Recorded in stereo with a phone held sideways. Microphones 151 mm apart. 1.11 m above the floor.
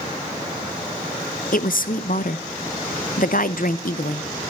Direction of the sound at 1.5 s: 65° left (ahead or behind).